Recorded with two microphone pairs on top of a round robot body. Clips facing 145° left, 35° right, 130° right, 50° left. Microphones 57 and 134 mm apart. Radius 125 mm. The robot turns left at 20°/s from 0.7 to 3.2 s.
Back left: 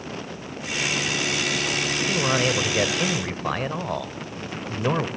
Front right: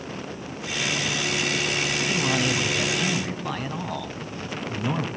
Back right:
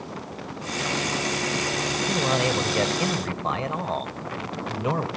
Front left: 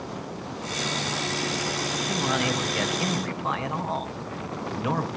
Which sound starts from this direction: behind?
A man speaking, at 2.1 s.